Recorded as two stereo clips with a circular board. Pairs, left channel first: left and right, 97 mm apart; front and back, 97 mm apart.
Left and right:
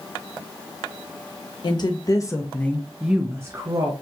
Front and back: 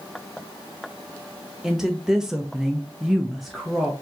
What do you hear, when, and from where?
1.6 s a woman speaking: 100° left, 1.0 m; by 3.9 s 90° right, 0.9 m